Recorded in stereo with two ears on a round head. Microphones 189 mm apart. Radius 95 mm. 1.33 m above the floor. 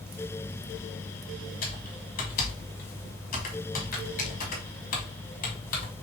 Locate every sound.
1.6 s typing on a keyboard: 40° left (ahead or behind), 1.5 m